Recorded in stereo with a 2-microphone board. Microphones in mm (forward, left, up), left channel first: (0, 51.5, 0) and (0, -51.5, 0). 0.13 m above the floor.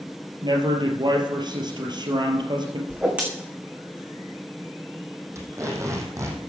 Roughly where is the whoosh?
Centre.